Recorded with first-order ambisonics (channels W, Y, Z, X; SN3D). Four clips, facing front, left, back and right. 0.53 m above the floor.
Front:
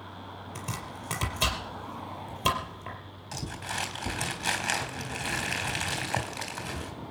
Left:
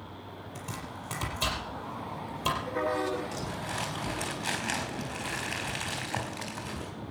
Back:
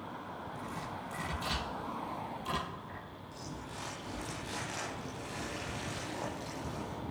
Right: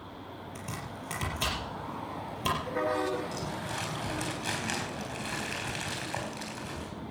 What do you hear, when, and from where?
0.6 s chopping: 15° right, 5 m
3.3 s crumpling: 5° right, 4 m